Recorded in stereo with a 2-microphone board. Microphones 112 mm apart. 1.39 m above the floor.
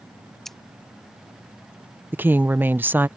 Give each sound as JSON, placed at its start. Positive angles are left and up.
{"t": 0.5, "sound": "scissors", "side_deg": 5}
{"t": 2.1, "sound": "a woman speaking", "side_deg": -20}